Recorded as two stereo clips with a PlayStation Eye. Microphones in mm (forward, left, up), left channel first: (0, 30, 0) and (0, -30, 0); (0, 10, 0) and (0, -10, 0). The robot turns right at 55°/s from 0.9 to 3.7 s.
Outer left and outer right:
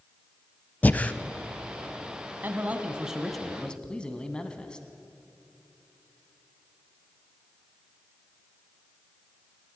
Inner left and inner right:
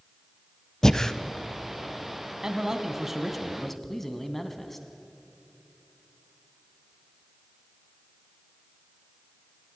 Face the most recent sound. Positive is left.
turn(degrees=20)